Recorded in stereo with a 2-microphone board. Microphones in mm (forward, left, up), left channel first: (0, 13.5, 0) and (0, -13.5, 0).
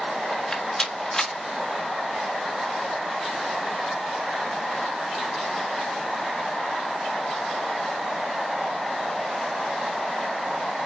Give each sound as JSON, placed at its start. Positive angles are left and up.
{"t": 0.3, "sound": "a rattle", "side_deg": 20, "distance_m": 1.5}